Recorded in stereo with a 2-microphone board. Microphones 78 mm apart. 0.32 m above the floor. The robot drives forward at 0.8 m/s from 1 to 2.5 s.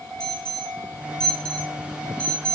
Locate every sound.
0.2 s an alarm: 5° left (ahead or behind), 3 m; by 2.6 s 10° left (ahead or behind), 2 m